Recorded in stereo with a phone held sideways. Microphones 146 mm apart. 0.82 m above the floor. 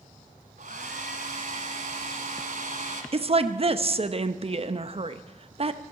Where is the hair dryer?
65° right (ahead or behind), 1.6 m.